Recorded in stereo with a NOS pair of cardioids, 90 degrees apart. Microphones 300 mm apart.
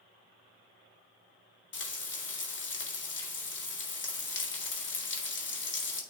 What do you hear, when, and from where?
1.7 s frying: 40° left, 1.8 m